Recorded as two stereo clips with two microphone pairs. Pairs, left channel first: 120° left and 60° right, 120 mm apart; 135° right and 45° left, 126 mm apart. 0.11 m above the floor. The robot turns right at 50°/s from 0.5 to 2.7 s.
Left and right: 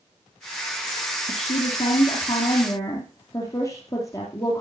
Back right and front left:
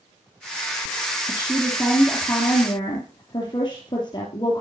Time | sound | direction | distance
1.3 | a woman speaking | 110° left | 2.5 m